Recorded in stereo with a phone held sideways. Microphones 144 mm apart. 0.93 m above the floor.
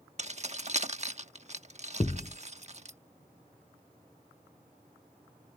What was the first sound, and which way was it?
Keys jangling, 50° right (ahead or behind).